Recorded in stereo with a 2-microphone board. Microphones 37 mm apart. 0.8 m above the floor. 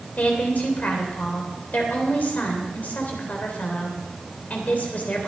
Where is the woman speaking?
45° left (ahead or behind), 3 m.